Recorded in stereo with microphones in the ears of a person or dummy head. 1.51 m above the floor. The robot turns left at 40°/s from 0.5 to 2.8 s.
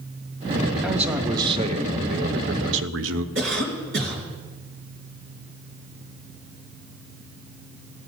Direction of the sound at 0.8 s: Straight ahead.